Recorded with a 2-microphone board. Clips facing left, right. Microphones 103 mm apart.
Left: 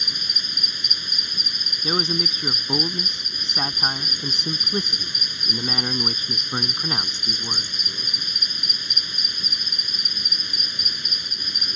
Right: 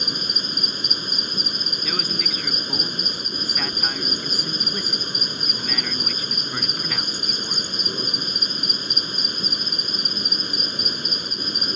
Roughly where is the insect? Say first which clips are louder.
Right 7 dB; right.